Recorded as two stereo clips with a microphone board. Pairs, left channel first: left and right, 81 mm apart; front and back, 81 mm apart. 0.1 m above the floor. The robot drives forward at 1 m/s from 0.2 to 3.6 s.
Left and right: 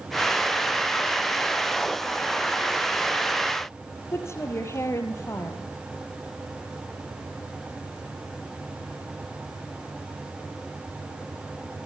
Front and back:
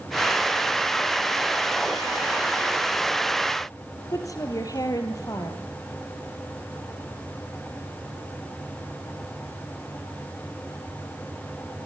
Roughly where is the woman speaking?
Ahead left.